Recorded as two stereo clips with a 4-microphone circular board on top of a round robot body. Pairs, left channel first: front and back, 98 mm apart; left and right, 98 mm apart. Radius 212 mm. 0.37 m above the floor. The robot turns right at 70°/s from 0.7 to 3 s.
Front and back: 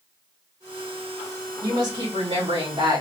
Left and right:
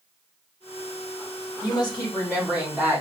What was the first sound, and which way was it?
A woman speaking, 125° left.